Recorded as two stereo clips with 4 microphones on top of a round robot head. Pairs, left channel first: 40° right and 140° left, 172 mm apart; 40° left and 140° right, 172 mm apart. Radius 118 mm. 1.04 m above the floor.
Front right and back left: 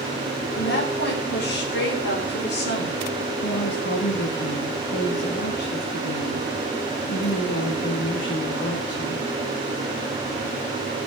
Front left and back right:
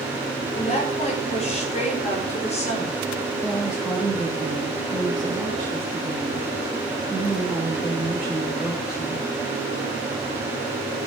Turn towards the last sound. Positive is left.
turn(degrees=-55)